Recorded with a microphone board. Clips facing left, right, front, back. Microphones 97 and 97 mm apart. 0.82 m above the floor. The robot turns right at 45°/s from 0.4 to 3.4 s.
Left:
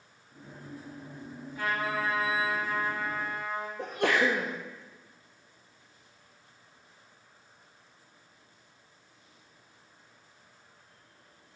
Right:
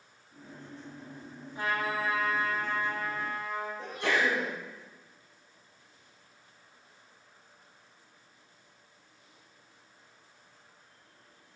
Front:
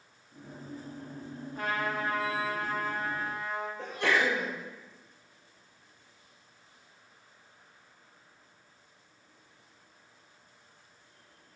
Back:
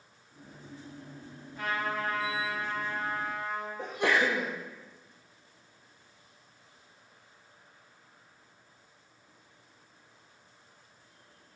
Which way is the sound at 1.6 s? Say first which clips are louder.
Even, even; 30° right.